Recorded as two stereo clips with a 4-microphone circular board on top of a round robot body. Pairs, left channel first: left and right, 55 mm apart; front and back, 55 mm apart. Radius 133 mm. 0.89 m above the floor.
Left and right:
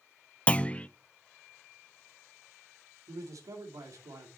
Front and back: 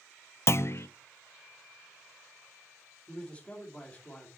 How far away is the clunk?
About 0.5 m.